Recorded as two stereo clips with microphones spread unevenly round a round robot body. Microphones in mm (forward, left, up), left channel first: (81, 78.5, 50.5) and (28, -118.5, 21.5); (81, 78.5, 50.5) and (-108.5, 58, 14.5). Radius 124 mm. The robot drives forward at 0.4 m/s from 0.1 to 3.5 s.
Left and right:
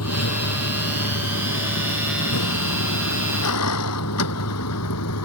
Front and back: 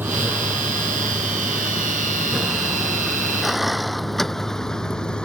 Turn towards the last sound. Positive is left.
turn(degrees=90)